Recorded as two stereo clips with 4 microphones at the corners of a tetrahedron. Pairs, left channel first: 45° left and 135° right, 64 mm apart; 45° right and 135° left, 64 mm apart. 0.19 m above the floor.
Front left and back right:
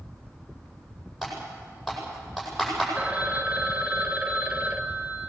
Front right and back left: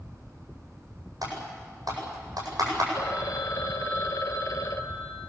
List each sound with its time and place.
1.2 s typing on a keyboard: 135° left, 8 m
3.0 s a phone ringing: 65° right, 2.0 m